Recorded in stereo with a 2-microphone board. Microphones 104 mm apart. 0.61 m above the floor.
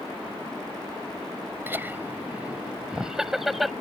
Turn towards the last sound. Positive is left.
turn(degrees=0)  # may be behind; listen again after turning